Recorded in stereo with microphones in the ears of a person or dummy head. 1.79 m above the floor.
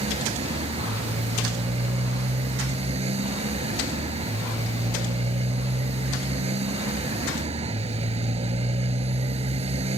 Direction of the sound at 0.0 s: 30° right (ahead or behind).